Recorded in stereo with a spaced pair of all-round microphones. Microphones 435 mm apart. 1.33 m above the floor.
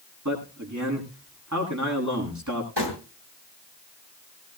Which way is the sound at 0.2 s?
40° right (ahead or behind).